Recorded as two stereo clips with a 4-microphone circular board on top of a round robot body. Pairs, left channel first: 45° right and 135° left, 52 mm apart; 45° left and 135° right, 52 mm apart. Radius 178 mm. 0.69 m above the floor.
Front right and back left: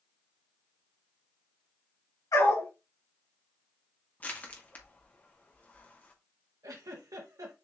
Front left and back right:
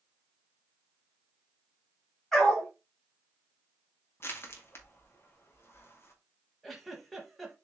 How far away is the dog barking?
About 3.5 m.